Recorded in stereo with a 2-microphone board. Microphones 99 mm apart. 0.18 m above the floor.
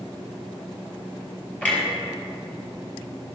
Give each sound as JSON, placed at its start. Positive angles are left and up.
{"t": 1.6, "sound": "a clunk", "side_deg": 15, "distance_m": 4.5}